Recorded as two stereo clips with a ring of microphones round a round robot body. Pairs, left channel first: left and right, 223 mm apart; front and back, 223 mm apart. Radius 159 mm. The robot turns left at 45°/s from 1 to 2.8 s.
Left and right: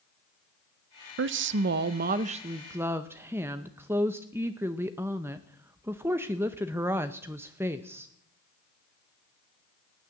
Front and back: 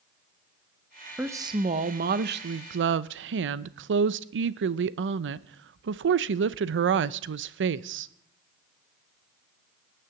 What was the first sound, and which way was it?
A woman speaking, 95° right.